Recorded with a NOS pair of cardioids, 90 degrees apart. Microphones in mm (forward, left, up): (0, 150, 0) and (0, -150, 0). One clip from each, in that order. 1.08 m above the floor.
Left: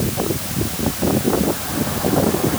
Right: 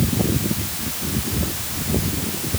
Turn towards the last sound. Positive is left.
No sound to turn to.